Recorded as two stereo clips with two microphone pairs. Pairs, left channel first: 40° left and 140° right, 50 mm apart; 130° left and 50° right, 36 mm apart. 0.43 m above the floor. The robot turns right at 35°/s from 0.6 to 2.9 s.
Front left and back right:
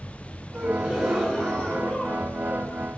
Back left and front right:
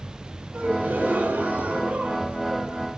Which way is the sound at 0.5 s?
70° right.